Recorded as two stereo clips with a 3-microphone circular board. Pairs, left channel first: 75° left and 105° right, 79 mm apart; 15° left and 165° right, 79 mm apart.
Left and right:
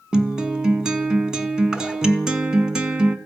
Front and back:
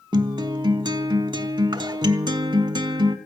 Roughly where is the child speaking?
I don't hear a child speaking.